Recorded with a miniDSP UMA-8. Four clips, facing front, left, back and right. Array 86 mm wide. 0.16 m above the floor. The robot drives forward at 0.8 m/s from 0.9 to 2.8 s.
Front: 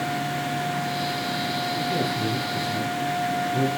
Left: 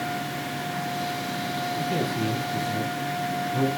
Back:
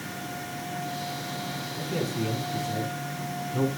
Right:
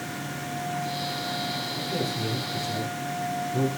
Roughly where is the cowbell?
No cowbell in this recording.